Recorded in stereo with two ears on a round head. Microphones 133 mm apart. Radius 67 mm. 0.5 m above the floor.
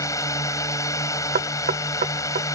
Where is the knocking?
60° right (ahead or behind).